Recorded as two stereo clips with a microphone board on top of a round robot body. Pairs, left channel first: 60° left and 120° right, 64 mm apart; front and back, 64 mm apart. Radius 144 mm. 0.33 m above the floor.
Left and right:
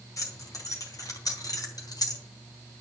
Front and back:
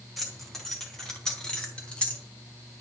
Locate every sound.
0.2 s keys jangling: 90° left, 4 m; by 2.2 s 70° left, 3 m